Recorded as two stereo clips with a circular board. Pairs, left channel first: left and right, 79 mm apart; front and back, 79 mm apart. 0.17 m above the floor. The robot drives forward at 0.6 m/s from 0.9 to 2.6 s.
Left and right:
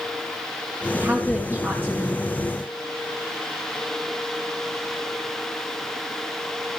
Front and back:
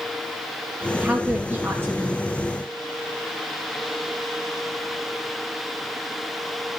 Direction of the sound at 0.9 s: 115° right.